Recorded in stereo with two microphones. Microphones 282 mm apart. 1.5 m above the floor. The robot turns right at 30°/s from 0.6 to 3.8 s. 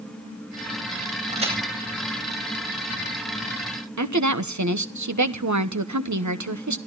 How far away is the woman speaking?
About 1.3 m.